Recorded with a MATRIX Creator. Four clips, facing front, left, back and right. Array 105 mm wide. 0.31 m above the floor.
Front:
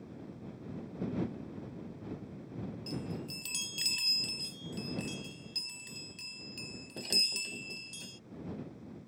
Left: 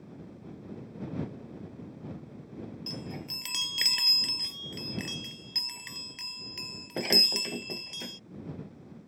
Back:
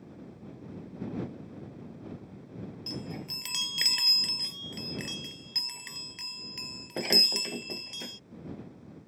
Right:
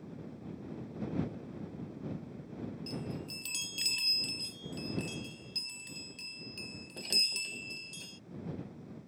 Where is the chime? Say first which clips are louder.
Even, back 1 dB; 135° left.